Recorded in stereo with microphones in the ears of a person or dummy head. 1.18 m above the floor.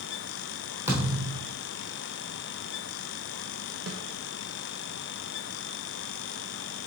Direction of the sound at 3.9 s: 75° right (ahead or behind).